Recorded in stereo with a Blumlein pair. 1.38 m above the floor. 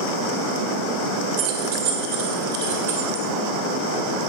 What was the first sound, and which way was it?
Keys jangling, 45° right.